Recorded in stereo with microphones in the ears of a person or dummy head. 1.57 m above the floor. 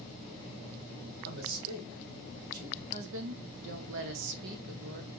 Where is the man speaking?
85° right, 2.5 m; by 2.8 s 80° right, 3 m.